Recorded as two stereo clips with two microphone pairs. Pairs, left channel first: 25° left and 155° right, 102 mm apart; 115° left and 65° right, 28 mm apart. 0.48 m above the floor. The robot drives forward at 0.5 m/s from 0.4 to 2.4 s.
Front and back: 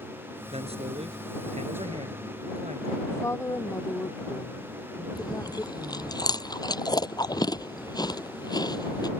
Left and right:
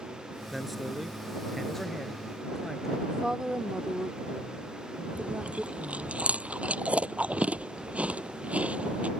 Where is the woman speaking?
15° right.